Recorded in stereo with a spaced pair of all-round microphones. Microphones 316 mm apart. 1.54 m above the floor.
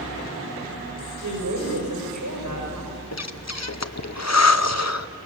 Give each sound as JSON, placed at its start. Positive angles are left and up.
{"t": 1.2, "sound": "a woman speaking", "side_deg": -80, "distance_m": 5.0}
{"t": 3.1, "sound": "breathing", "side_deg": 55, "distance_m": 0.7}